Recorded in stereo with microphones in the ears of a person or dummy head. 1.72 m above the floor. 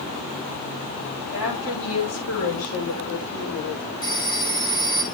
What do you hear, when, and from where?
1.3 s a woman speaking: 85° left, 9 m
4.0 s a phone ringing: 20° left (ahead or behind), 1.7 m